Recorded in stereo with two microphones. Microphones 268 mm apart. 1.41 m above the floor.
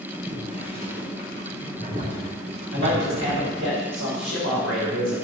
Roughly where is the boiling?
Right.